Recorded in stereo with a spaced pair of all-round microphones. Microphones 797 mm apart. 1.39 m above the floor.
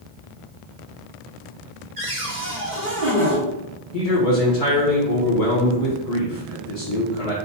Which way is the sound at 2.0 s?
70° right (ahead or behind).